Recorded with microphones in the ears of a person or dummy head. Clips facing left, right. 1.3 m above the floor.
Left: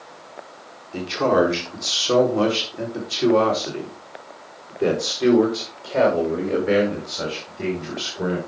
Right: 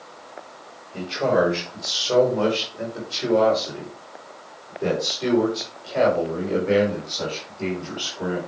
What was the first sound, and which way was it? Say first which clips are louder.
A man speaking: left 2 dB; 85° left.